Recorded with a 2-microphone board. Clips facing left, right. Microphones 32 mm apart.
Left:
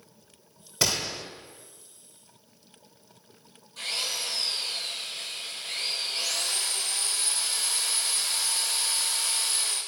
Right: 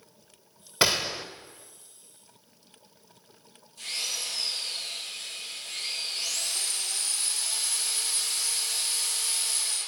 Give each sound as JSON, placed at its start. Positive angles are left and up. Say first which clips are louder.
{"t": 0.8, "sound": "a gunshot", "louder": "right 3 dB", "side_deg": -30, "distance_m": 1.0}
{"t": 3.8, "sound": "a drill", "louder": "left 2 dB", "side_deg": 60, "distance_m": 6.0}